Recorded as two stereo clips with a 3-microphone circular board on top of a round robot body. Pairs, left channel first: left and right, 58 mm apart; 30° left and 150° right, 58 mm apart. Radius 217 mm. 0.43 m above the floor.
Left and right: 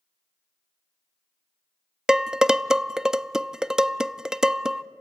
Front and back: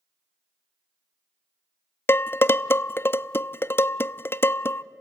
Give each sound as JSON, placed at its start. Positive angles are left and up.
{"t": 2.1, "sound": "dishes clattering", "azimuth_deg": -15, "distance_m": 0.5}